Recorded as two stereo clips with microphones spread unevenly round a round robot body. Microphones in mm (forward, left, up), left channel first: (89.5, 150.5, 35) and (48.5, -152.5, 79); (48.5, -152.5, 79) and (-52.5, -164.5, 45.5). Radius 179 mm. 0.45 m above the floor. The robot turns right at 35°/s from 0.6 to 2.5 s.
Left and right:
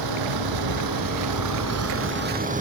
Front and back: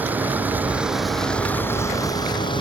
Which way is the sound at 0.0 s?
100° right.